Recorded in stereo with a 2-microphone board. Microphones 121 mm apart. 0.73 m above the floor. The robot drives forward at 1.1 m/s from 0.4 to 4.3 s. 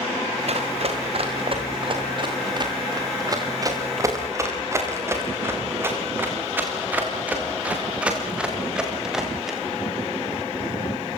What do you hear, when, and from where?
0.5 s running footsteps: 60° right (ahead or behind), 7 m; by 9.6 s centre (ahead or behind), 8.5 m